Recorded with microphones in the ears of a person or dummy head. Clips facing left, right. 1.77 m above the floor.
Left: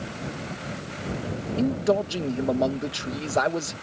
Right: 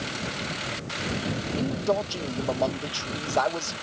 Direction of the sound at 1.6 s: 25° left (ahead or behind).